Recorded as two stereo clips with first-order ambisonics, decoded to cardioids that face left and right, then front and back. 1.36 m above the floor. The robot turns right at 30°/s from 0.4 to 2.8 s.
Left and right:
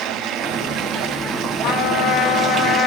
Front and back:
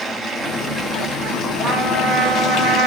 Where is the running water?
90° right, 1.0 m; by 2.9 s 20° right, 1.0 m.